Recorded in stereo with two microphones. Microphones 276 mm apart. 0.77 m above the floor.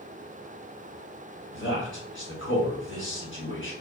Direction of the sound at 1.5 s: 45° left (ahead or behind).